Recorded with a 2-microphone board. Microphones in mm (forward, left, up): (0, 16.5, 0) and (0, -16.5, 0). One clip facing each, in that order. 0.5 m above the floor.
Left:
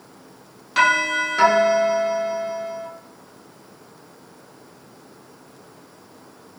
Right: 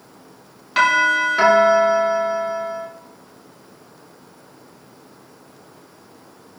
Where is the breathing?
No breathing in this recording.